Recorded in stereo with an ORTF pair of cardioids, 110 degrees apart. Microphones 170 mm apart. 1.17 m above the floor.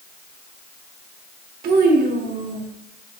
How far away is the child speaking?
About 2 m.